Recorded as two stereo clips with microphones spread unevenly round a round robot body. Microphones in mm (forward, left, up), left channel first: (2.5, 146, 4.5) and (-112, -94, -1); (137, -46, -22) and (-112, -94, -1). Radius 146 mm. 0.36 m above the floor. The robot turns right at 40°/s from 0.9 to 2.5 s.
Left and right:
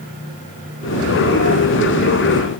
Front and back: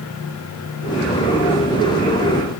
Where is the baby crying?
I don't hear a baby crying.